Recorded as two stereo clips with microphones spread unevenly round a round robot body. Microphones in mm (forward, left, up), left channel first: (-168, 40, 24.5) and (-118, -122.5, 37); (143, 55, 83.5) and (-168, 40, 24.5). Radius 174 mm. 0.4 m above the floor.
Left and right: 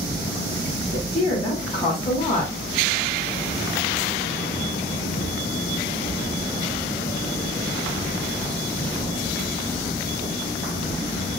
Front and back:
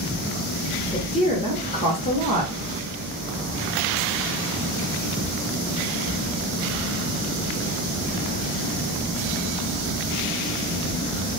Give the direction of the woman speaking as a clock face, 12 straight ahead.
9 o'clock.